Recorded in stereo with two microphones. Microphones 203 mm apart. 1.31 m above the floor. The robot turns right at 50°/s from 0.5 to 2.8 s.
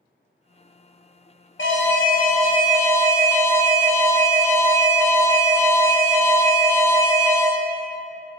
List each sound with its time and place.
1.6 s an alarm: 105° left, 0.8 m; by 7.5 s 165° left, 0.8 m